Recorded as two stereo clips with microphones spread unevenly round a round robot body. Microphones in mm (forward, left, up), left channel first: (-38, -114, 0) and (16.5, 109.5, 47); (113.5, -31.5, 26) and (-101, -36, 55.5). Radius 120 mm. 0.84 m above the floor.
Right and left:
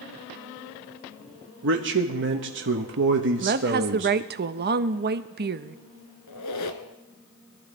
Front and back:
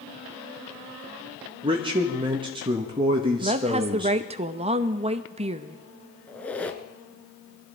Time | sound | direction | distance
1.6 | a man speaking | 110° left | 1.1 m
3.4 | a woman speaking | 120° left | 0.7 m
6.3 | a squeak | 85° right | 1.4 m